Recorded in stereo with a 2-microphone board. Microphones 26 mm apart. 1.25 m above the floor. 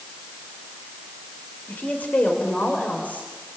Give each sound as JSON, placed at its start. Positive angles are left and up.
{"t": 1.7, "sound": "a woman speaking", "side_deg": 80, "distance_m": 4.0}